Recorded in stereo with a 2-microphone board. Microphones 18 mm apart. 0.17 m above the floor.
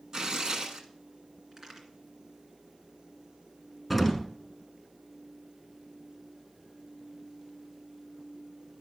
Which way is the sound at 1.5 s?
25° right (ahead or behind).